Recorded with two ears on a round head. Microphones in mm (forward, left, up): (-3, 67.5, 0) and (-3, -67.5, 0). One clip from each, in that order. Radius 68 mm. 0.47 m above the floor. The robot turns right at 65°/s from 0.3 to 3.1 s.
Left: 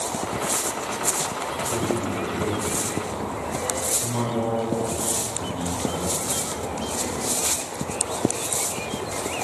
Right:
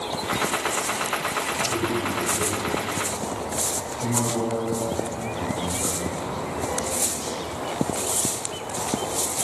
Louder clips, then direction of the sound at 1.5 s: Right 1 dB; 40° right (ahead or behind).